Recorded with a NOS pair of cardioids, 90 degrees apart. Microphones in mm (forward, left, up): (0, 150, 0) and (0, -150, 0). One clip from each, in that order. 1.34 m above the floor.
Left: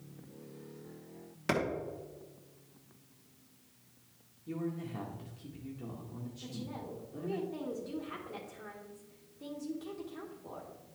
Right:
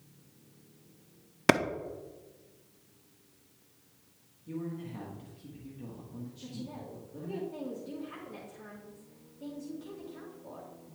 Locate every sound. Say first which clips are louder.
1.5 s a clap: right 8 dB; 55° right, 0.8 m
4.5 s a man speaking: left 1 dB; 10° left, 1.6 m
6.4 s a woman speaking: left 1 dB; 10° left, 1.8 m